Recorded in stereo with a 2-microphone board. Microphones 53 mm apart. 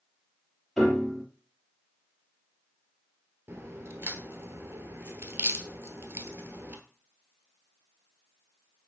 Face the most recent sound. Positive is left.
turn(degrees=-45)  # may be behind; listen again after turning